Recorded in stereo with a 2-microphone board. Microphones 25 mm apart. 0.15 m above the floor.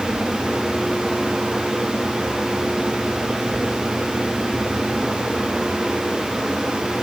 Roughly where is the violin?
No violin in this recording.